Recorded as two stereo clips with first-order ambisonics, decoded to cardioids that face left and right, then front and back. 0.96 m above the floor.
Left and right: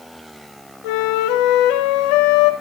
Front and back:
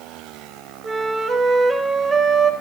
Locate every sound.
0.8 s a flute: 105° left, 2.5 m